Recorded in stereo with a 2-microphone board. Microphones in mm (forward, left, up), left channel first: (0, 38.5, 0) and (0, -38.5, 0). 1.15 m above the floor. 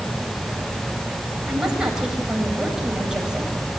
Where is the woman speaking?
10° right (ahead or behind), 7 m.